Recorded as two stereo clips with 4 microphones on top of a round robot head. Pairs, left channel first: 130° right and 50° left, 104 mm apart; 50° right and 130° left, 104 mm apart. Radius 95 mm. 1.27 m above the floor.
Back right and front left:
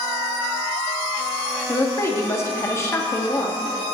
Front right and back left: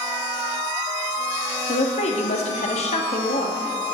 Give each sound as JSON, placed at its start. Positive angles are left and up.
{"t": 1.7, "sound": "a woman speaking", "azimuth_deg": -65, "distance_m": 2.5}